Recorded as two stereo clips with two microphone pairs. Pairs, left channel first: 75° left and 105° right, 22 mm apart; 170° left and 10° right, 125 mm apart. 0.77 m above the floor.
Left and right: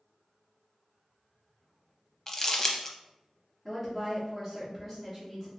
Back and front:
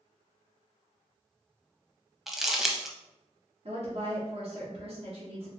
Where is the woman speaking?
Straight ahead, 1.2 m.